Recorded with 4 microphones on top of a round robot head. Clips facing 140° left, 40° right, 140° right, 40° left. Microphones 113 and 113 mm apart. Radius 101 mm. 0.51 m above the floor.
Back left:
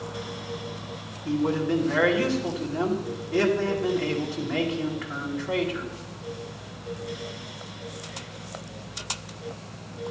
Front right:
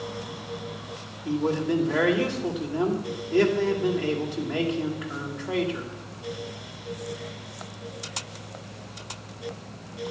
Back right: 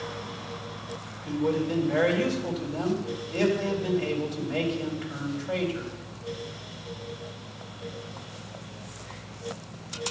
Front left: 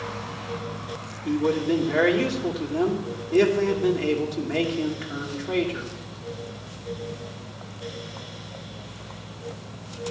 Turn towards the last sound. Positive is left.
turn(degrees=25)